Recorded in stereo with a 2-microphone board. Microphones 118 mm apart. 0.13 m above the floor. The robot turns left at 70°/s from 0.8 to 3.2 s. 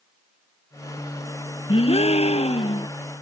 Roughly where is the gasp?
Behind left.